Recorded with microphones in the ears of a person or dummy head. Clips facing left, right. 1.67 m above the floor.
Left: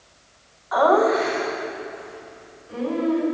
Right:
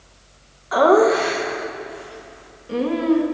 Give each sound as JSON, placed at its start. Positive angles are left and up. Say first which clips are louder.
{"t": 0.7, "sound": "laughter", "louder": "right 3 dB", "side_deg": -35, "distance_m": 2.5}